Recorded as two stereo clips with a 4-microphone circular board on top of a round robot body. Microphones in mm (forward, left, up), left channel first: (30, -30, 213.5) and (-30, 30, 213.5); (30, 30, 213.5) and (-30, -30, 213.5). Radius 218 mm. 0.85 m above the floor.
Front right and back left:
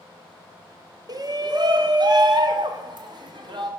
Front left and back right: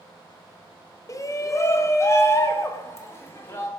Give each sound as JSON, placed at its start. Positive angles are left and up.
{"t": 1.1, "sound": "a shout", "azimuth_deg": 95, "distance_m": 1.2}